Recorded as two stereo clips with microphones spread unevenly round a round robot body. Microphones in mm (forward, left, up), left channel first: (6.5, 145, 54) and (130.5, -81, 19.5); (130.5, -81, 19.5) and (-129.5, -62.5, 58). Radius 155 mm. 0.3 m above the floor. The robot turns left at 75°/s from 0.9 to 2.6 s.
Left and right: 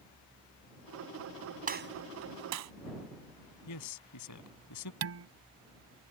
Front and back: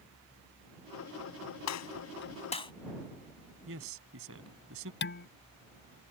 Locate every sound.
1.7 s a gunshot: 5° right; by 2.7 s 75° right
3.7 s a man speaking: 130° left
5.0 s dishes clattering: 45° right